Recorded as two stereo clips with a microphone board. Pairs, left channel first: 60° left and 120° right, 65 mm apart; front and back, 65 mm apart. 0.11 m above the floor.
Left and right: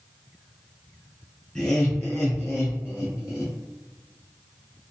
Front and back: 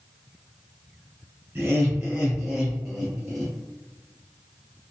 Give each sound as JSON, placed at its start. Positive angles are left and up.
{"t": 1.6, "sound": "laughter", "azimuth_deg": 125, "distance_m": 1.8}